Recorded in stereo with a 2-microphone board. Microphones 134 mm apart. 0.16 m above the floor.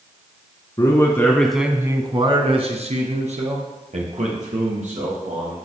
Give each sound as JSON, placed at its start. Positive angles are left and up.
{"t": 0.8, "sound": "a man speaking", "side_deg": 35, "distance_m": 1.4}